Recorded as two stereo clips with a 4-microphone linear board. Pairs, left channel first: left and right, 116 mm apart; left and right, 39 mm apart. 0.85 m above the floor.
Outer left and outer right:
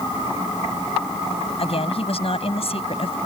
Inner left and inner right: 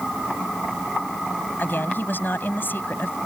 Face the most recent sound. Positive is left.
turn(degrees=55)  # may be behind; listen again after turning